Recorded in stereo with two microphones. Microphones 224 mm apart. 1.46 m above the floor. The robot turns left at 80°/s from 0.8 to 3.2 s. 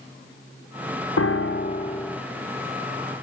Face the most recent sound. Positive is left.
turn(degrees=-80)